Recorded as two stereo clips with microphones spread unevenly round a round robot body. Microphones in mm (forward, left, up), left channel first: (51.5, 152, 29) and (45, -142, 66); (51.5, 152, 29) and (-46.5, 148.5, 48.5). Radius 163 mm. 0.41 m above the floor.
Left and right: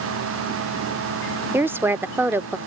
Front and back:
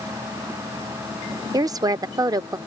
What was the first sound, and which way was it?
A woman speaking, straight behind.